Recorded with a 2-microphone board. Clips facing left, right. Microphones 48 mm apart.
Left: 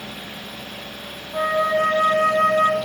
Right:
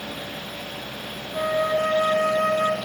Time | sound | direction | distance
1.3 | a flute | 40° left (ahead or behind) | 0.8 m